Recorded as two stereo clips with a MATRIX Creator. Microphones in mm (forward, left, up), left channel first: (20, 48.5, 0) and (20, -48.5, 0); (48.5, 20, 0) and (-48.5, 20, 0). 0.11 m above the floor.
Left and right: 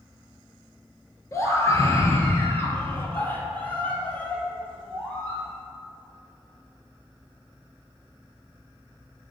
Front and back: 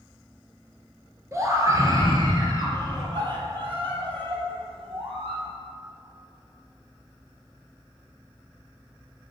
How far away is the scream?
About 2 m.